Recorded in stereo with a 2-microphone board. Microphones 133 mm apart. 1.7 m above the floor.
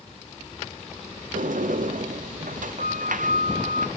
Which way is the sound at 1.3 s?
80° right.